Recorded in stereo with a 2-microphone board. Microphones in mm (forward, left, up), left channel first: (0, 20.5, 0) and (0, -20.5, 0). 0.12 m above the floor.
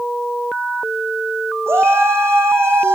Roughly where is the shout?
Right.